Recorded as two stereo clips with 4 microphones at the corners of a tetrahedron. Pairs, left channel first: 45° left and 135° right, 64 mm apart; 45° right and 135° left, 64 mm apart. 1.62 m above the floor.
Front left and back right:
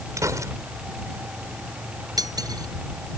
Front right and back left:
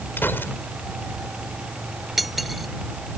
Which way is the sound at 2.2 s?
135° right.